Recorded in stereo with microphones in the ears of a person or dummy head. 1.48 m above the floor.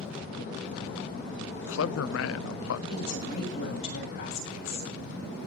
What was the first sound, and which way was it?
A man speaking, 80° left.